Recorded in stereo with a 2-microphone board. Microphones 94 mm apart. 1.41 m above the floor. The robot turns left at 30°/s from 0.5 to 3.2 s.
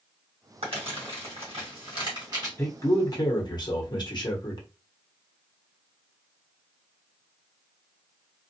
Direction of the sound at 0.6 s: 70° right (ahead or behind).